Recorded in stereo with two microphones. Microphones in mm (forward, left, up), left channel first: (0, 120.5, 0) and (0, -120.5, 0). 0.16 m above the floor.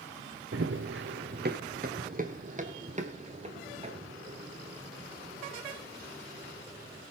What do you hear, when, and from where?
0.5 s running footsteps: 65° right (ahead or behind), 1.0 m; by 7.0 s 20° right (ahead or behind), 6 m